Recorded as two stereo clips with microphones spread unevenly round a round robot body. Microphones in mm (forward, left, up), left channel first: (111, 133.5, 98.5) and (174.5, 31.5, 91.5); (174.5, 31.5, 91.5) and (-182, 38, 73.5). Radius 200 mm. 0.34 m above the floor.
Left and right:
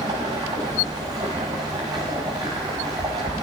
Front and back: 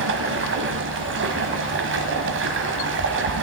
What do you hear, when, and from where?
0.0 s running water: 125° right, 1.2 m